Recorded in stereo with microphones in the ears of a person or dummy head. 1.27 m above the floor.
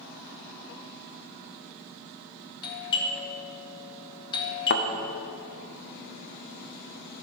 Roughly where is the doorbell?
Left.